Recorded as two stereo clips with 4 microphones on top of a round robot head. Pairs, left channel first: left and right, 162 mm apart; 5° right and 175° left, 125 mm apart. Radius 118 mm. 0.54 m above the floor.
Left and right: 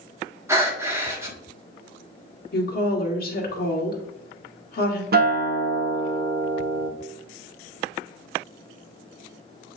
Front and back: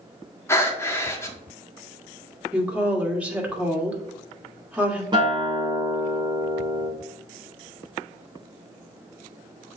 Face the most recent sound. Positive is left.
turn(degrees=-120)